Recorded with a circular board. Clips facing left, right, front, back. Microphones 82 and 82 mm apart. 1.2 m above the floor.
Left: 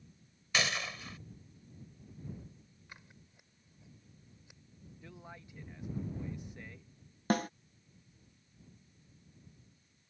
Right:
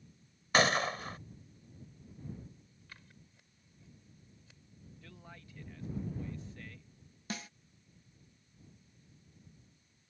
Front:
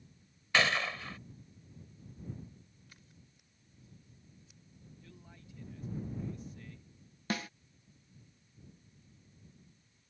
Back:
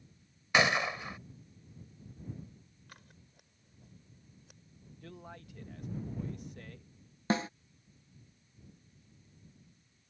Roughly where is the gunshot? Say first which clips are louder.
Right 7 dB, back 2 dB; behind right.